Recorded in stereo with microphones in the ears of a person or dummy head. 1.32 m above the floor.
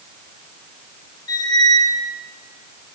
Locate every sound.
1.3 s a squeak: 20° left (ahead or behind), 1.2 m